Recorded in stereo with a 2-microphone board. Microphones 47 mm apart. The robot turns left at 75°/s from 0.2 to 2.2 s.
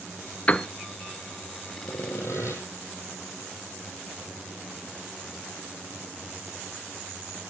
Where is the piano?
30° left (ahead or behind), 0.6 m; by 0.7 s 20° left (ahead or behind), 0.6 m.